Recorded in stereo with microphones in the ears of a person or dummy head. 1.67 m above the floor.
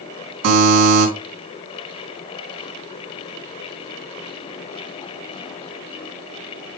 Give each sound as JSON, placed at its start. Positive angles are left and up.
{"t": 0.4, "sound": "a buzzer", "side_deg": -60, "distance_m": 3.5}